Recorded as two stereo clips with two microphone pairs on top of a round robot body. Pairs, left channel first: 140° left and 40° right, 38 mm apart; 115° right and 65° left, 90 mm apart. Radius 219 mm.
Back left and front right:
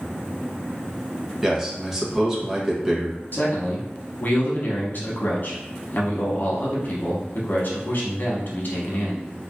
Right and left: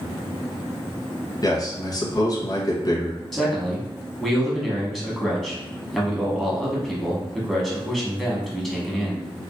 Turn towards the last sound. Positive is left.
turn(degrees=160)